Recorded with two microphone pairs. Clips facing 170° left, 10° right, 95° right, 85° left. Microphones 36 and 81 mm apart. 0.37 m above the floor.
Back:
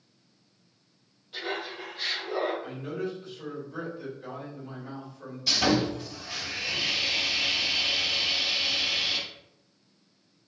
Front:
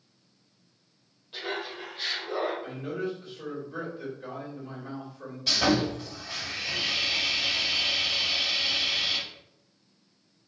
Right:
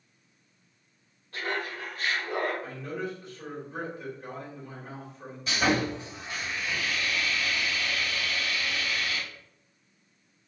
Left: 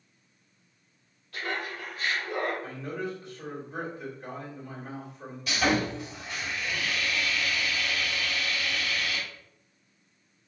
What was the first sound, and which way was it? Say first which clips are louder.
Laughter: even, right 1 dB; 70° right.